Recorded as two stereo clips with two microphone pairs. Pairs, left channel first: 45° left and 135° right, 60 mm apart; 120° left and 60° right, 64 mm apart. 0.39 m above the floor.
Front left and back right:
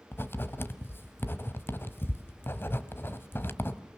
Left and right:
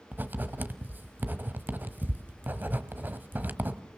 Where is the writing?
5° right, 1.3 m.